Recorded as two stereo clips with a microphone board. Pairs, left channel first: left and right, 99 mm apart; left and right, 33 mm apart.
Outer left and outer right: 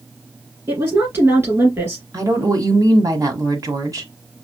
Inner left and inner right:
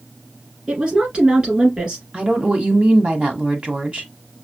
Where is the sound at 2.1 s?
40° right (ahead or behind), 1.5 m.